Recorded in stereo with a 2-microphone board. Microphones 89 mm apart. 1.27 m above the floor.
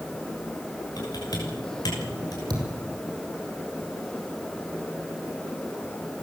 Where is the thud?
45° right (ahead or behind), 6 m.